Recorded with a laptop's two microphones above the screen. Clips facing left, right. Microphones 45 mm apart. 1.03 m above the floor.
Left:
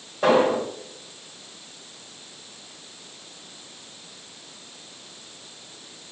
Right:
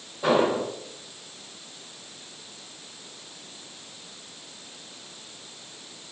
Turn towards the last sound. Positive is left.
turn(degrees=60)  # may be behind; listen again after turning